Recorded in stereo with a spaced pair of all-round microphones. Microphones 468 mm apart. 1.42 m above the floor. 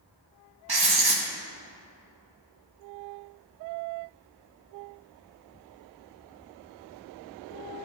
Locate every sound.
0.7 s writing: 50° right (ahead or behind), 0.8 m